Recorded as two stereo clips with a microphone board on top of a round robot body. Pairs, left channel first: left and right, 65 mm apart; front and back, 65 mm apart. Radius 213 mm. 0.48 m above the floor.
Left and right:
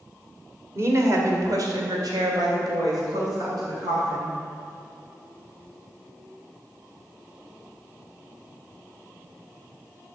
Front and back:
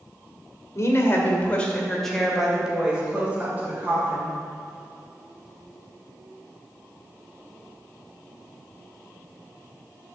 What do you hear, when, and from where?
0.8 s a woman speaking: 45° right, 2 m; by 4.4 s 120° right, 4 m